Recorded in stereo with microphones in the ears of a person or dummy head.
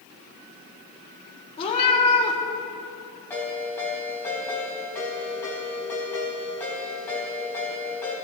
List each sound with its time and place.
1.6 s a cat meowing: 30° left (ahead or behind), 1.6 m
3.3 s a ringtone: 10° left (ahead or behind), 3.5 m